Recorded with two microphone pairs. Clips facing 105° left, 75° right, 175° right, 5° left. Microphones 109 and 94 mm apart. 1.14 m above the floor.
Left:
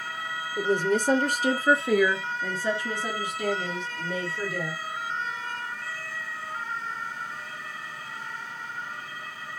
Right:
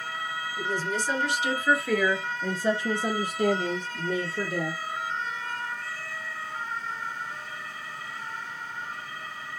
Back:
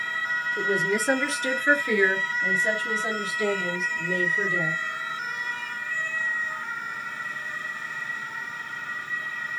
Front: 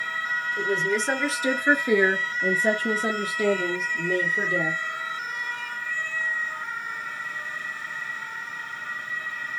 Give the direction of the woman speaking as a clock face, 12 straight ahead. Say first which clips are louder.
Left 7 dB, even; 8 o'clock.